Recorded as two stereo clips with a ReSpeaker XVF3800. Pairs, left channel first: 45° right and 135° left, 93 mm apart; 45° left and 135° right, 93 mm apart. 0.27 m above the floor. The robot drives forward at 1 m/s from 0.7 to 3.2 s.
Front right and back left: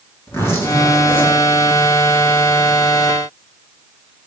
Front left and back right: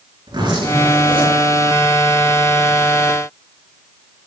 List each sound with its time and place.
0.3 s a zipper: 105° right, 3.5 m; by 1.4 s 115° right, 3.5 m